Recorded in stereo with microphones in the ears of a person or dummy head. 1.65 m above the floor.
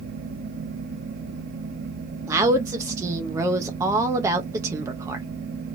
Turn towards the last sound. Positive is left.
turn(degrees=-15)  # may be behind; listen again after turning